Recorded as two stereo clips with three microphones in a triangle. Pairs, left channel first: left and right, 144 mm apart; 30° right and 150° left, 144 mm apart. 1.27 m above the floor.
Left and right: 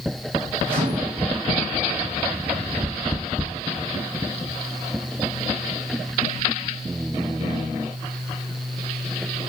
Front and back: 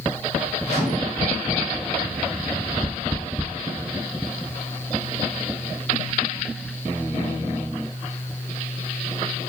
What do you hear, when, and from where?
0.7 s a microwave: 90° right, 6.5 m